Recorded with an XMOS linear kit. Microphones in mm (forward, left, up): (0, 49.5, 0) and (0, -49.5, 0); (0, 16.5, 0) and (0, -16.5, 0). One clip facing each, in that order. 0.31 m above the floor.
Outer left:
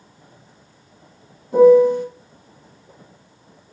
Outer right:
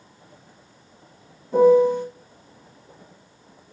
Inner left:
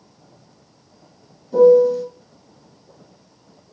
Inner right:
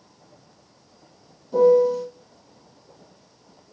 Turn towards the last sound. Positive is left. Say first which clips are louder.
# outer left 4 dB, inner left 5 dB
turn(degrees=5)  # may be behind; listen again after turning